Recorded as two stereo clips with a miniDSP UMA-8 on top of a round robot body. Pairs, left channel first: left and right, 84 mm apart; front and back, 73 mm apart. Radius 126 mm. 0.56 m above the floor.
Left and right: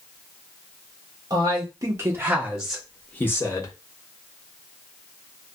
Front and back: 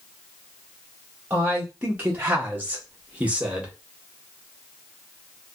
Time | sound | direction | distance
1.3 | a man speaking | 110° right | 1.1 m